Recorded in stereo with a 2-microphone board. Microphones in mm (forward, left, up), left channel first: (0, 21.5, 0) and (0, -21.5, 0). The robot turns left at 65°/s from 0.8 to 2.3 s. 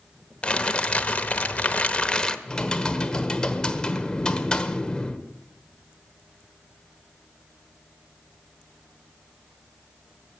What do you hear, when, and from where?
0.4 s crumpling: 130° left, 0.9 m; by 2.4 s 35° left, 0.9 m
2.5 s typing on a keyboard: 20° left (ahead or behind), 1.2 m